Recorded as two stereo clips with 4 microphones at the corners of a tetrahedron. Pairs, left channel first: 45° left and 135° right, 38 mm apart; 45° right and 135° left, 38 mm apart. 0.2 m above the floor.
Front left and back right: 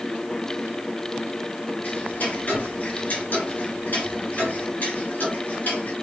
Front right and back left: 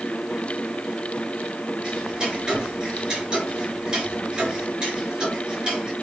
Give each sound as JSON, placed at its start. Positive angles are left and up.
{"t": 1.8, "sound": "ticking", "azimuth_deg": 75, "distance_m": 2.5}